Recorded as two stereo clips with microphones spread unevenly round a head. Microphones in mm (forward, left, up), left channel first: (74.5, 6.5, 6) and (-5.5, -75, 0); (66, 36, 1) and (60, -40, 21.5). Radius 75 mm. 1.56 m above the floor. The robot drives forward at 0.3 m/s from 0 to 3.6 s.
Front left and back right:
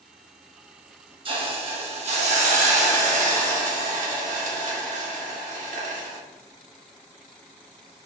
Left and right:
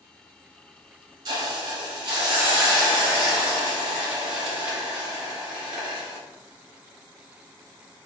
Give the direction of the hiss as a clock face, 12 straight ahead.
3 o'clock.